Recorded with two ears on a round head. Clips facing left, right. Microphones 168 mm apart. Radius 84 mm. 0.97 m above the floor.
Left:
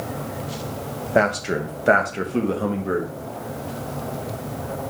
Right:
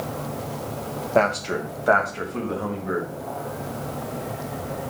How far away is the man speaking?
About 1.0 m.